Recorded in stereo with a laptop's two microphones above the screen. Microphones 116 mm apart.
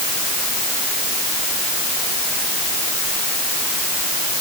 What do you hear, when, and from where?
Only background noise.